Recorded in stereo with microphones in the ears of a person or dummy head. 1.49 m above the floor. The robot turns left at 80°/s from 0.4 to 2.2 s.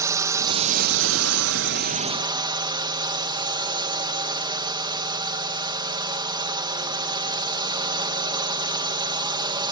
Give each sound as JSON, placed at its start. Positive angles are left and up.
{"t": 0.0, "sound": "a drone", "azimuth_deg": -15}